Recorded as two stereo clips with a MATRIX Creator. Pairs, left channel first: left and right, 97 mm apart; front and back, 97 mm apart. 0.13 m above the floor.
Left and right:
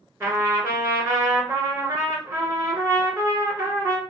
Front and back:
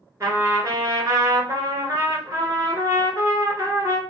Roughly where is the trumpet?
Behind right.